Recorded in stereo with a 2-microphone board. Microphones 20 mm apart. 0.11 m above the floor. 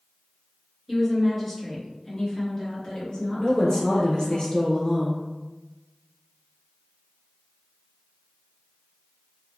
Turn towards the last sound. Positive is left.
turn(degrees=40)  # may be behind; listen again after turning